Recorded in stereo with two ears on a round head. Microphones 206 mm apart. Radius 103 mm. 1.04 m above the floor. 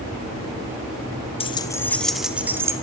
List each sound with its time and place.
1.4 s keys jangling: 25° left (ahead or behind), 1.7 m; by 2.7 s 15° right (ahead or behind), 2.5 m